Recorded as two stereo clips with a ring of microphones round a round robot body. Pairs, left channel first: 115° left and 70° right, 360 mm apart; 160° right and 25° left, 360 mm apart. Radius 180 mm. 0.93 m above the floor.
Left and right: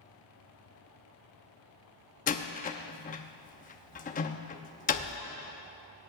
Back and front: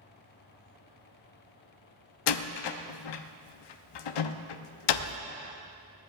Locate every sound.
2.3 s a door slam: straight behind, 0.8 m